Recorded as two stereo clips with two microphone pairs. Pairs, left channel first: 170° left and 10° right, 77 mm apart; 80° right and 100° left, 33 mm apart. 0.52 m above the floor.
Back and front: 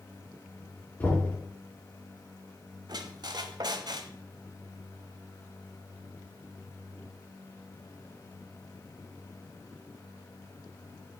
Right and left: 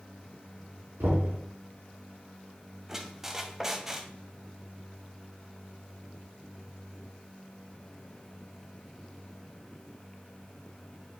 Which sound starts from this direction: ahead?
A squeak, at 2.9 s.